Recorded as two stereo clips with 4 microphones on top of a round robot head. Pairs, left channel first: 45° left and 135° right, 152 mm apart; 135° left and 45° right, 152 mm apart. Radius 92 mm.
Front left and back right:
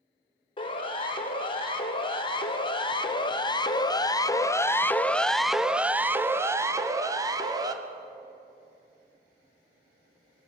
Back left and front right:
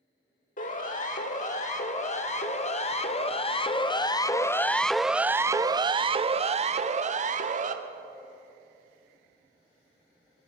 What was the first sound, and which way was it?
A siren, 100° left.